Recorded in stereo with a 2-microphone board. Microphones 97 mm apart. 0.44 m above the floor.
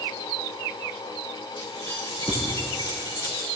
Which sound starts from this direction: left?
Keys jangling, at 1.6 s.